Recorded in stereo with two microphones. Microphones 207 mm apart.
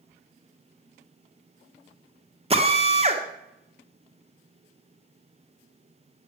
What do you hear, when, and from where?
2.5 s a drill: 30° right (ahead or behind), 1.4 m